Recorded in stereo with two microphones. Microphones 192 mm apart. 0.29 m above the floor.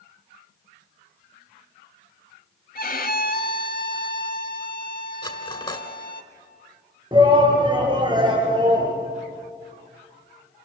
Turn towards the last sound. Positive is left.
turn(degrees=-25)  # may be behind; listen again after turning